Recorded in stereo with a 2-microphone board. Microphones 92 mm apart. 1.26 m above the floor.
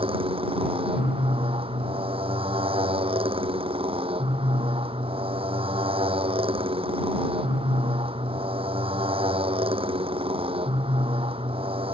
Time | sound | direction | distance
0.0 | a motorcycle | 90° right | ?